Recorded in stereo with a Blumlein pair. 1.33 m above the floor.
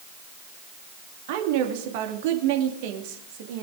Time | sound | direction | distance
1.3 | a woman speaking | 50° right | 2.5 m